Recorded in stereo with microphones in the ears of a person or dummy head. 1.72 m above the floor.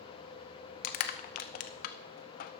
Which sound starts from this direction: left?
Crushing, at 0.8 s.